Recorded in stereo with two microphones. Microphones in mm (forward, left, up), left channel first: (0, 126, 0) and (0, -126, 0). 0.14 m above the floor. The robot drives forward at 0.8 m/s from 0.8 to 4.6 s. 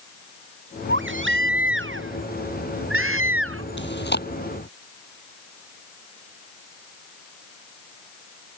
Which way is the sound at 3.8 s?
45° left (ahead or behind).